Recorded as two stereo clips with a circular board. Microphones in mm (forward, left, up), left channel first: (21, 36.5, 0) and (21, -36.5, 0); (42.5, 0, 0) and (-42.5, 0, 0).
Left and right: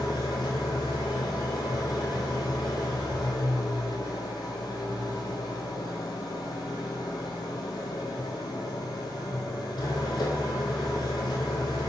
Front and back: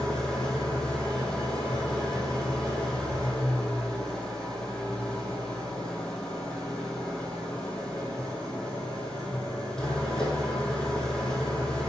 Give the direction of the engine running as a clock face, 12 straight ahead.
9 o'clock.